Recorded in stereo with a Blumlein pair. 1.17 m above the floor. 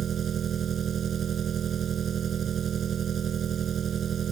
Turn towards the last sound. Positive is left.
turn(degrees=-25)